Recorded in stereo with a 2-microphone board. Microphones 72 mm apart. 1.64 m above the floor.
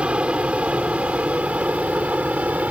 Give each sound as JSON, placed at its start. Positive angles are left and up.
{"t": 0.0, "sound": "an aircraft", "side_deg": -15}